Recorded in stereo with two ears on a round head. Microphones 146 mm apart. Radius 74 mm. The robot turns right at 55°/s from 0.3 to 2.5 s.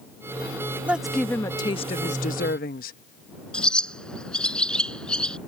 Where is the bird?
5° left (ahead or behind).